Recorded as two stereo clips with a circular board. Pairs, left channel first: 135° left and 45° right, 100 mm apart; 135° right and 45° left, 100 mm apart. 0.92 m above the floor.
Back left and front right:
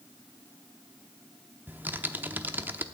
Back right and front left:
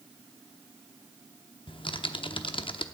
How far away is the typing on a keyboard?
About 0.7 m.